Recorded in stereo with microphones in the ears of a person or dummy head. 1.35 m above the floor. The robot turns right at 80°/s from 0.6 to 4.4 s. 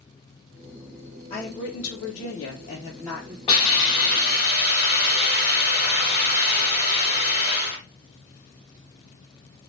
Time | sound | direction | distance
1.3 | a woman speaking | 35° left | 0.7 m
3.5 | a hiss | 55° left | 1.6 m